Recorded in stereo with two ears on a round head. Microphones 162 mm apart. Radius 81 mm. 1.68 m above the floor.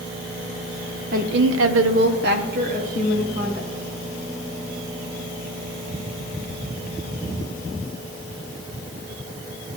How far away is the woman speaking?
About 1.0 m.